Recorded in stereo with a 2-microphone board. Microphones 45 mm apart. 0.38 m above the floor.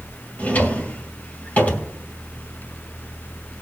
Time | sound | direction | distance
0.4 | a drawer | 40° left (ahead or behind) | 2.0 m